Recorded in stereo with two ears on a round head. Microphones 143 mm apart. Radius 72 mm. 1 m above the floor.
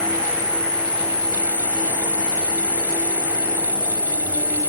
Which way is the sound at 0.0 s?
35° left (ahead or behind).